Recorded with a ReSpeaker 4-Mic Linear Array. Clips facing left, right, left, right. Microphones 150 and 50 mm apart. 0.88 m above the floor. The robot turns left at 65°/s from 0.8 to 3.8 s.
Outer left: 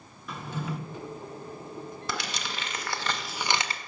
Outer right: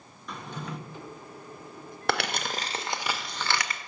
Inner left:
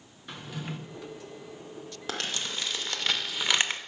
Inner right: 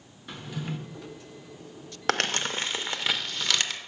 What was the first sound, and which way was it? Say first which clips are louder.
A drawer: outer left 3 dB, inner right 2 dB; 5° left (ahead or behind).